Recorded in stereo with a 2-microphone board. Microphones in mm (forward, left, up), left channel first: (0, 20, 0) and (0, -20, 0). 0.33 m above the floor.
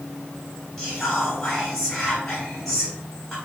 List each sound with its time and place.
0.8 s whispering: 10° left (ahead or behind), 1.8 m